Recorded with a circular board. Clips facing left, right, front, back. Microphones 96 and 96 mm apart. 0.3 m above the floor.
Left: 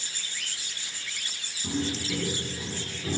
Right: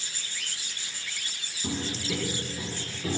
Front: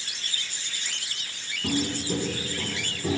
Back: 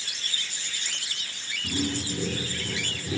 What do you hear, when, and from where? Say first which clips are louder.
1.6 s footsteps: left 2 dB, front 2 dB; 25° right, 8 m